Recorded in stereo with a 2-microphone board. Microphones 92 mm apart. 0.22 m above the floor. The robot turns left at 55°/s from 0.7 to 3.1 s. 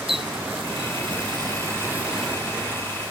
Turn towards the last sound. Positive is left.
turn(degrees=45)  # may be behind; listen again after turning